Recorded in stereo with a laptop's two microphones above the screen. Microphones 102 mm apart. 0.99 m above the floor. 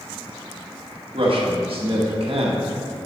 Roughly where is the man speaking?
Right.